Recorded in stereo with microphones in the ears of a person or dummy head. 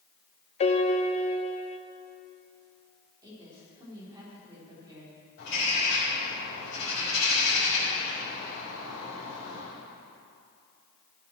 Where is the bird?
60° left (ahead or behind), 5 m.